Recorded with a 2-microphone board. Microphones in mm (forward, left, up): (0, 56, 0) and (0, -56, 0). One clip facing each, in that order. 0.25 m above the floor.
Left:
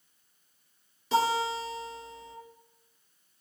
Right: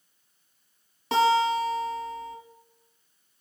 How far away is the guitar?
About 1.1 m.